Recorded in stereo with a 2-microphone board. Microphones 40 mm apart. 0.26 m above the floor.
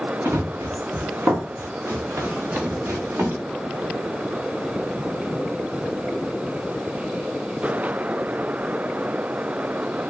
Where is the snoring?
No snoring in this recording.